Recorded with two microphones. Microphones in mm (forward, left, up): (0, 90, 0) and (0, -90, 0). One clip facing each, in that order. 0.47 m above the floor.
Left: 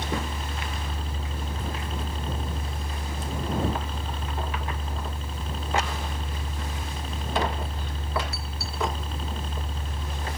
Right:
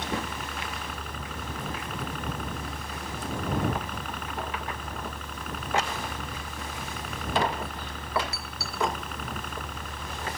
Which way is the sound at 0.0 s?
25° left (ahead or behind).